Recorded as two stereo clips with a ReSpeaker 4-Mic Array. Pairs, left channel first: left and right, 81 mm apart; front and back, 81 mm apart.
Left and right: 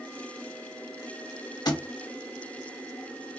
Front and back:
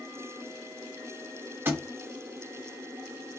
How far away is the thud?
About 0.7 m.